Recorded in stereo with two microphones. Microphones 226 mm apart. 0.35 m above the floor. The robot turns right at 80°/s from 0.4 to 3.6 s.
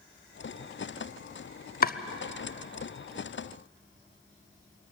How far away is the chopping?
About 0.6 m.